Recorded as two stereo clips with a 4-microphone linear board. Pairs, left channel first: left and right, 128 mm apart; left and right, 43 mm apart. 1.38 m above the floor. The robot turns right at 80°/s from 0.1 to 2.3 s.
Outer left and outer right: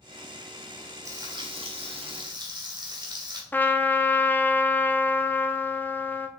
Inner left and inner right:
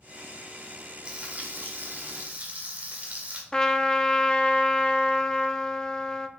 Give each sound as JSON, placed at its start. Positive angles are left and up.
{"t": 1.1, "sound": "frying", "azimuth_deg": -150, "distance_m": 1.5}
{"t": 3.5, "sound": "a trumpet", "side_deg": 15, "distance_m": 0.6}